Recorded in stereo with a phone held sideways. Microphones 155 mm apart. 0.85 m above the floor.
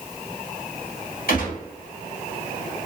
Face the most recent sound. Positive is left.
turn(degrees=70)  # may be behind; listen again after turning